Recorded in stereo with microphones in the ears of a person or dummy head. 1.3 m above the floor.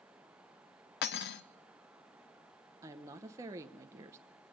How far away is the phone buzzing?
I don't hear a phone buzzing.